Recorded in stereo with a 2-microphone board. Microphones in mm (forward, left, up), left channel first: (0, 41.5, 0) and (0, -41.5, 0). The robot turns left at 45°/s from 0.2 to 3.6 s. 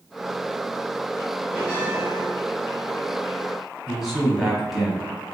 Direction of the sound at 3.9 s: 5° right (ahead or behind).